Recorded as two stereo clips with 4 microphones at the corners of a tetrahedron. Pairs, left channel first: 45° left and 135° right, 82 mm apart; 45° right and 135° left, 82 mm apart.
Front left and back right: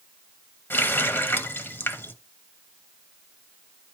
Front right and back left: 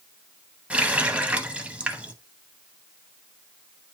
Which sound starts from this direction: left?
A running tap, at 0.7 s.